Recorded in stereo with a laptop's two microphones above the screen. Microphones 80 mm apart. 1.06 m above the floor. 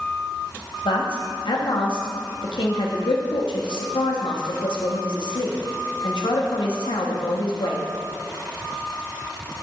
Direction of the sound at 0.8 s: 85° left.